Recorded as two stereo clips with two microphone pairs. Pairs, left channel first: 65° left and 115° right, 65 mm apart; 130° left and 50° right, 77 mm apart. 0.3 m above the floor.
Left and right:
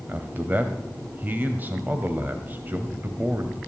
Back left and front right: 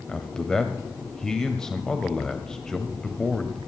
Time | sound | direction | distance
0.1 | a man speaking | 160° right | 1.3 m